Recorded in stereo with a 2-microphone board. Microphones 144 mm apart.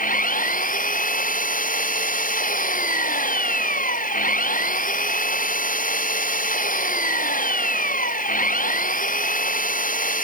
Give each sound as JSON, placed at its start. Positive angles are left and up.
{"t": 0.0, "sound": "an engine running", "side_deg": 70}